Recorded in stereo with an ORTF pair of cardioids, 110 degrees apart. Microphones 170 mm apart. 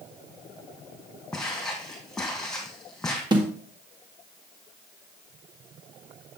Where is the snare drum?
25° right, 2 m.